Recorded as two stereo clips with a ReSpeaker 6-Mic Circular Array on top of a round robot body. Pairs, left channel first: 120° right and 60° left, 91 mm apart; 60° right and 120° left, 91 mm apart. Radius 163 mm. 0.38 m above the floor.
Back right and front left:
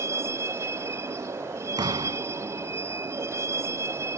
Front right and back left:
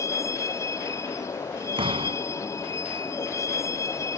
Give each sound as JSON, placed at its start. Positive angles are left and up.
{"t": 0.0, "sound": "a vehicle", "azimuth_deg": 0}
{"t": 1.8, "sound": "a door slam", "azimuth_deg": 100}